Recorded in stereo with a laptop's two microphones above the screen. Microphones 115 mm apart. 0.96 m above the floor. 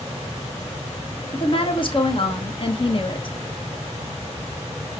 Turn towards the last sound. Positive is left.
turn(degrees=45)  # may be behind; listen again after turning